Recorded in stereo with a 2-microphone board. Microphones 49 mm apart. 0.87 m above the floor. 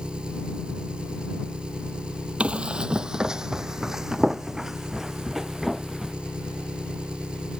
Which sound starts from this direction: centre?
An engine running, at 0.0 s.